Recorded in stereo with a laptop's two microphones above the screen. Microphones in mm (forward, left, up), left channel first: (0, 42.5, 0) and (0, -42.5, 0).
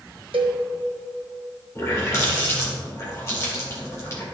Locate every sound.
0.3 s a cowbell: 85° right, 1.0 m
1.8 s a running tap: 35° left (ahead or behind), 2 m